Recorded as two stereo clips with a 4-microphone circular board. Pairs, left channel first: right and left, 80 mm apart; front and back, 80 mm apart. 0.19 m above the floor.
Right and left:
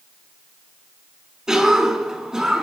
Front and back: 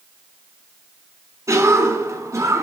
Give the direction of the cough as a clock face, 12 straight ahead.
6 o'clock.